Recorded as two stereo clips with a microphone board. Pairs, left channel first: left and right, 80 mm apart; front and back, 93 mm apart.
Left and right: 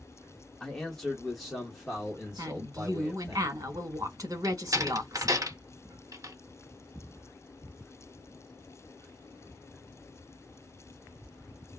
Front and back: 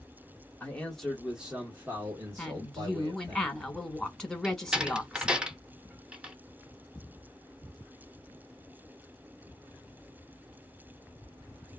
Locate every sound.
0.6 s a man speaking: 25° left, 1.0 m; by 3.4 s 165° right, 1.6 m
2.4 s a woman speaking: 80° right, 1.1 m
4.4 s a door slam: 100° right, 0.6 m